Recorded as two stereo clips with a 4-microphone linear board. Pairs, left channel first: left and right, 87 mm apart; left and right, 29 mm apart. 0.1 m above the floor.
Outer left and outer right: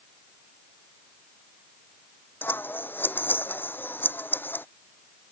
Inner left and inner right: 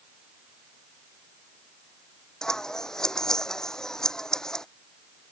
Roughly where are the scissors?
Left.